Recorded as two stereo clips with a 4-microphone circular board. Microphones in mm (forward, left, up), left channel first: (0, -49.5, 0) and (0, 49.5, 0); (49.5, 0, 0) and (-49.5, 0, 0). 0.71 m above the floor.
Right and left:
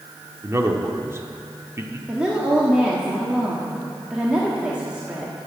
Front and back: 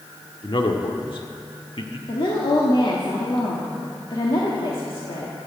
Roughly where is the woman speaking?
Ahead.